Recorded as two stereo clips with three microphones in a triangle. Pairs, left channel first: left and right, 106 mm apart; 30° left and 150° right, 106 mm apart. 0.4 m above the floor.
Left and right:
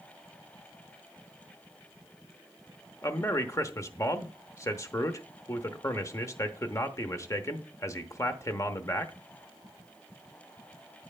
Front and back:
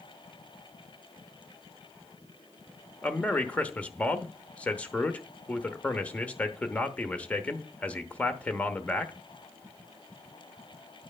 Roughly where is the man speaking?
Left.